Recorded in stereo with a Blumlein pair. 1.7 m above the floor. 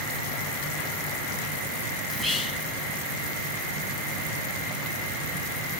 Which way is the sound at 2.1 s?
Straight ahead.